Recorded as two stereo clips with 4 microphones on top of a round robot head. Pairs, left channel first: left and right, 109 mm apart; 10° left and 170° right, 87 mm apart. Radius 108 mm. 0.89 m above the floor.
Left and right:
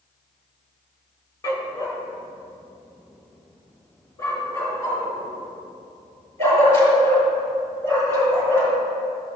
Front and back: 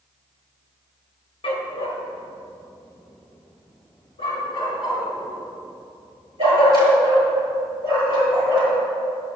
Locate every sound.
1.4 s a dog barking: 30° left, 1.0 m